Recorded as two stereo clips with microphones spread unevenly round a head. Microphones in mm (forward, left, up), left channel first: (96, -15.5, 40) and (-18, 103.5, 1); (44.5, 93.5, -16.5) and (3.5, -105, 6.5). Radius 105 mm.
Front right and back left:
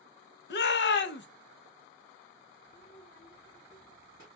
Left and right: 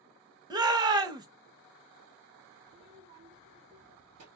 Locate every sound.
0.5 s a shout: 30° right, 1.2 m
2.7 s a child speaking: 95° right, 2.5 m